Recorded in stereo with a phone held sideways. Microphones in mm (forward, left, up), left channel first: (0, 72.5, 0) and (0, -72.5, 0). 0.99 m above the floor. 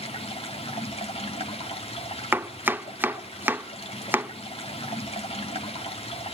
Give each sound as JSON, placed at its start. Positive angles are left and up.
{"t": 0.0, "sound": "running water", "side_deg": 50, "distance_m": 2.0}
{"t": 2.3, "sound": "chopping", "side_deg": -15, "distance_m": 0.6}